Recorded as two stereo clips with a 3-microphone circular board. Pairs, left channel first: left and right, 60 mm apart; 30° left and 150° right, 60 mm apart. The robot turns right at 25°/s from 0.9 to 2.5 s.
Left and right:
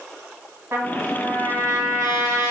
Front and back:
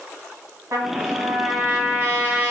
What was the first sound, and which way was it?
A trumpet, 130° right.